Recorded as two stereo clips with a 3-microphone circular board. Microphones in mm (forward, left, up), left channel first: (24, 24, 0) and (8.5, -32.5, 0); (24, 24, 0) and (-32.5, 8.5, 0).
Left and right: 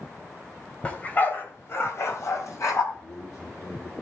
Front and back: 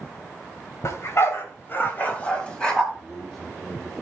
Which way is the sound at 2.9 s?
105° left.